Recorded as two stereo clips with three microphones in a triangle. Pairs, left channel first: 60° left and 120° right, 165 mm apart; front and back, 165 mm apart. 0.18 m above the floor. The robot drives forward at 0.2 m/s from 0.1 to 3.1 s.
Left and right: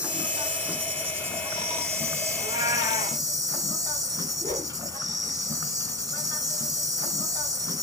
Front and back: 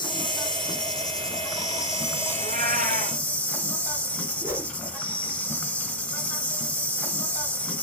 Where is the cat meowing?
175° left, 1.6 m.